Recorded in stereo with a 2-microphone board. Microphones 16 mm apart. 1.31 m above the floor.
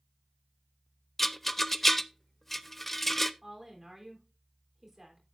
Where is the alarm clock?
I don't hear an alarm clock.